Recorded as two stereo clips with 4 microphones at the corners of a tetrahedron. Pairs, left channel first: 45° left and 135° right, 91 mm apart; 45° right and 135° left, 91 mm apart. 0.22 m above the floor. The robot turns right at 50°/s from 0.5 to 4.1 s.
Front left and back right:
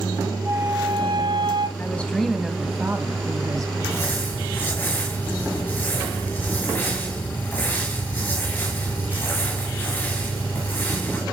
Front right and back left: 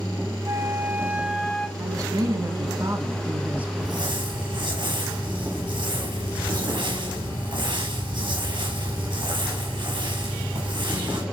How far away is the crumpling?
About 5 m.